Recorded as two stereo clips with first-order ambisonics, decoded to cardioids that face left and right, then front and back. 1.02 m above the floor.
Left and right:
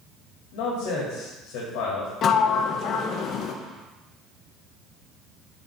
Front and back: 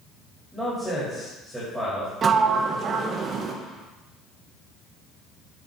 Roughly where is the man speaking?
Left.